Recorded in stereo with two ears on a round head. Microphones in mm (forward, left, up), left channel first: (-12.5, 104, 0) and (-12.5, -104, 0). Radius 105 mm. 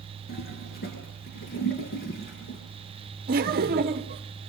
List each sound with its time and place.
0.3 s a toilet flushing: 45° left (ahead or behind), 4 m
3.3 s laughter: 40° right (ahead or behind), 1.1 m